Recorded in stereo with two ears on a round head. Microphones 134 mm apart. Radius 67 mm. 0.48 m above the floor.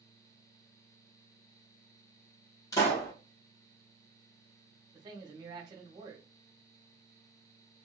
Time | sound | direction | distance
2.7 | a pop | 25° left (ahead or behind) | 1.5 m
4.9 | a man speaking | 25° right (ahead or behind) | 0.9 m